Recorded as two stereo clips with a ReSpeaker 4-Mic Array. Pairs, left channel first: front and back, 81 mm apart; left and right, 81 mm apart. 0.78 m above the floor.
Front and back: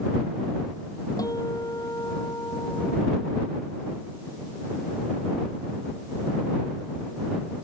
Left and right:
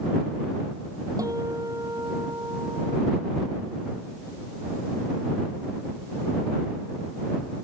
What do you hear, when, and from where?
1.2 s a guitar: 45° right